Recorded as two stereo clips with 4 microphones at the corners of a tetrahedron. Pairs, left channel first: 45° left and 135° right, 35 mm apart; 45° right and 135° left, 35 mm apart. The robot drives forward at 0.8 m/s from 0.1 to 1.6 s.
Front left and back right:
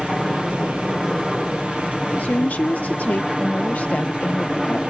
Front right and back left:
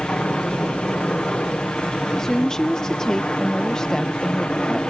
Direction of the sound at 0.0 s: 45° right.